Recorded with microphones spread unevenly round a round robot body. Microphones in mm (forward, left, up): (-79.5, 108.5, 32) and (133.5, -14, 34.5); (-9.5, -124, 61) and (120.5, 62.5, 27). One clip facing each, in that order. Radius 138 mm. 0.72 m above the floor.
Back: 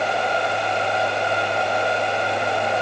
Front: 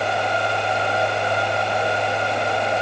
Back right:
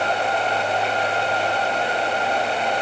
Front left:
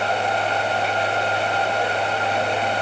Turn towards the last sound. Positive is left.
No sound to turn to.